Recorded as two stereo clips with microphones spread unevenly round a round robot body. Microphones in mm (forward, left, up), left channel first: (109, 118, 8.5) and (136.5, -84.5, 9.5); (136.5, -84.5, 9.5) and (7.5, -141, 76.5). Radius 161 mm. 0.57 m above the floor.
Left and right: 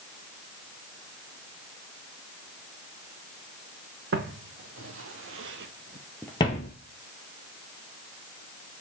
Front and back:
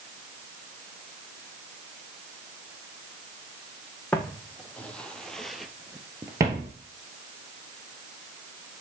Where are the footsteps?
65° right, 2 m; by 6.7 s 150° left, 0.9 m.